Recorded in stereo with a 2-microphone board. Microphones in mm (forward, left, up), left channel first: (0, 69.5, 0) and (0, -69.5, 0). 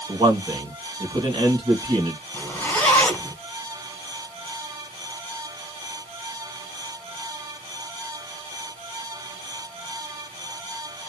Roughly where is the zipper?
Centre.